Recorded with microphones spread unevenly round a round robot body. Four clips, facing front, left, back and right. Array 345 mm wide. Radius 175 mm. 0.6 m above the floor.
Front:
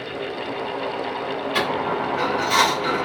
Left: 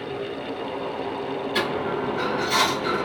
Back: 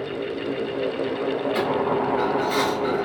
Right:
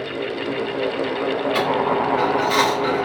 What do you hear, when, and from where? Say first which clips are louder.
1.6 s a dropped coin: right 5 dB, front 1 dB; 70° right, 1.7 m